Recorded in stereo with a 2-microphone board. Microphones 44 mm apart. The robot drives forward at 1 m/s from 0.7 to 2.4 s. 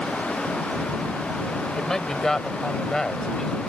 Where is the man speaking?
10° left (ahead or behind).